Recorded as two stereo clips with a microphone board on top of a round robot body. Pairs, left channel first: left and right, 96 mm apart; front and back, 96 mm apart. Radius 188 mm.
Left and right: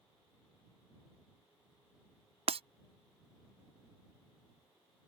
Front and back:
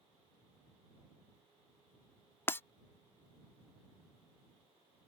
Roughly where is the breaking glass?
Right.